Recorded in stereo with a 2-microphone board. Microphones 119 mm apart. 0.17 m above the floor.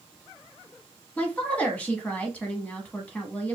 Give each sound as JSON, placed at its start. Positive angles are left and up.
{"t": 1.2, "sound": "a woman speaking", "side_deg": 10, "distance_m": 1.0}